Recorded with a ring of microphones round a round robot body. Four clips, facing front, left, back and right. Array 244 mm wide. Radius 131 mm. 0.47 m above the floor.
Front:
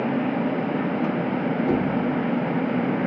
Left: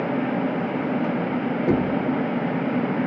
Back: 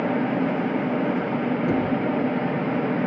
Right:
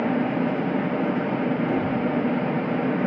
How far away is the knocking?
About 5.5 m.